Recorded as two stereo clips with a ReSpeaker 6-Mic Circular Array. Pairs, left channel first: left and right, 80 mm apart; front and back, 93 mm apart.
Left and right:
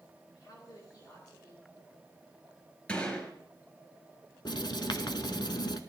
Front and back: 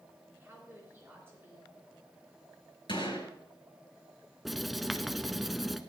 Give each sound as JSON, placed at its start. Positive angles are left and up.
{"t": 0.3, "sound": "a woman speaking", "azimuth_deg": 120, "distance_m": 3.5}
{"t": 2.9, "sound": "a gunshot", "azimuth_deg": 15, "distance_m": 4.0}
{"t": 4.5, "sound": "writing", "azimuth_deg": 90, "distance_m": 0.8}